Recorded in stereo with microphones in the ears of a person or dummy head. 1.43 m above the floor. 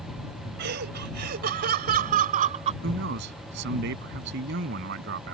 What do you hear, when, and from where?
0.6 s laughter: 60° right (ahead or behind); by 2.7 s 40° right (ahead or behind)
2.8 s a man speaking: 60° right (ahead or behind)